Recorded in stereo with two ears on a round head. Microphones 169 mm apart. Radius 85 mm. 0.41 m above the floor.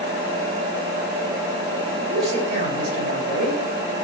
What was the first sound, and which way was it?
A man speaking, 50° right (ahead or behind).